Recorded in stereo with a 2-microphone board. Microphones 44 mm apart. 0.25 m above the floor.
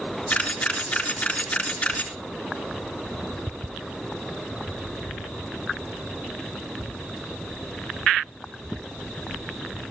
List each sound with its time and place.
0.3 s a camera shutter: 25° left (ahead or behind), 3 m